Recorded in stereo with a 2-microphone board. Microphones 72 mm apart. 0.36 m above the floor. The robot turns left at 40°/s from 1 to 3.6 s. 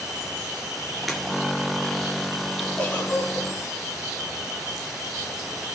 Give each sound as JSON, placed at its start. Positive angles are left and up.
{"t": 1.1, "sound": "breaking glass", "side_deg": 0, "distance_m": 2.5}
{"t": 2.8, "sound": "a giggle", "side_deg": 20, "distance_m": 3.0}